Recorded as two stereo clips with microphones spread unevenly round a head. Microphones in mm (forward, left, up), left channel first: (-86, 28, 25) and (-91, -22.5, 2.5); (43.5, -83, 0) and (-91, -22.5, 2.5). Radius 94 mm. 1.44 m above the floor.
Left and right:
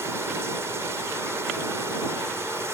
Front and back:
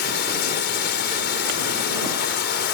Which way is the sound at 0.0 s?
20° right.